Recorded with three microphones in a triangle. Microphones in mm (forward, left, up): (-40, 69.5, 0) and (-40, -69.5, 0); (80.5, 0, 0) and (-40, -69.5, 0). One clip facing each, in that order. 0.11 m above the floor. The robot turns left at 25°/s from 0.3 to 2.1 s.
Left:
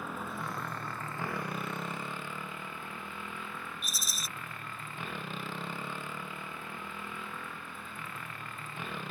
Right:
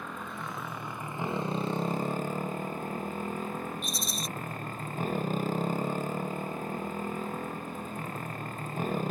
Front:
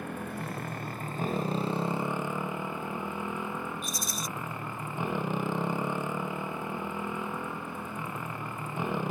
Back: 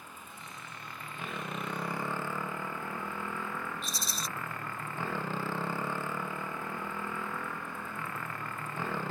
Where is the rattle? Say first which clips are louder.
Right 8 dB, front 3 dB; 175° left.